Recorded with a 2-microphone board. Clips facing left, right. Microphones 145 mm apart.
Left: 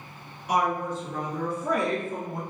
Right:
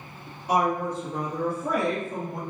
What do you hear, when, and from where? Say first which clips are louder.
0.5 s a woman speaking: right 2 dB; 30° right (ahead or behind), 1.8 m; by 2.4 s 5° left (ahead or behind), 2 m